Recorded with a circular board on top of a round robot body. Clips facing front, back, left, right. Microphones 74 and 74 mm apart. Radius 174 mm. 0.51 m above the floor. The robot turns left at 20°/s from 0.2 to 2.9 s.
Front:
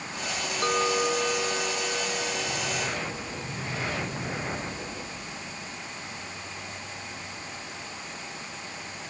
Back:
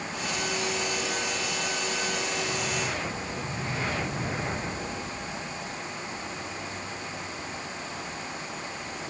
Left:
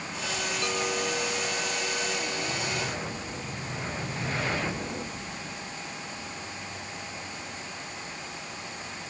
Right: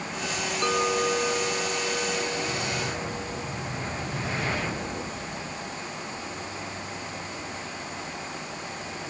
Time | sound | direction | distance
0.6 | a clink | 35° right | ?